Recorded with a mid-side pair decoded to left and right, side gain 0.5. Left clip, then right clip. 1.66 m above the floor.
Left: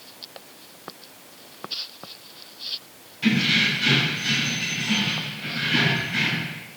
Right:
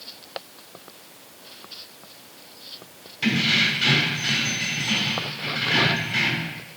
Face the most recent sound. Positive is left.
turn(degrees=-50)